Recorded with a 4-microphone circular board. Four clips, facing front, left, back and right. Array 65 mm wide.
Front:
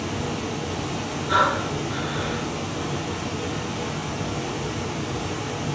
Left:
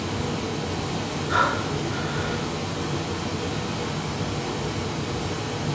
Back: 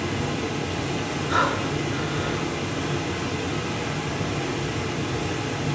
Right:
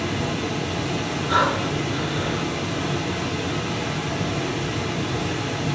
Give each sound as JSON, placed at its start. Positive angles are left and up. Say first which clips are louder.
{"t": 0.0, "sound": "running water", "louder": "right 3 dB, back 1 dB", "azimuth_deg": -110, "distance_m": 4.0}
{"t": 1.3, "sound": "breathing", "louder": "right 2 dB, front 3 dB", "azimuth_deg": -50, "distance_m": 2.5}